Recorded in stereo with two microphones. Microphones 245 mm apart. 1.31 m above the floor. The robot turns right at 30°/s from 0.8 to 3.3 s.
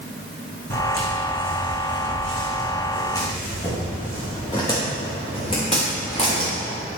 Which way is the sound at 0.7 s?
65° left (ahead or behind).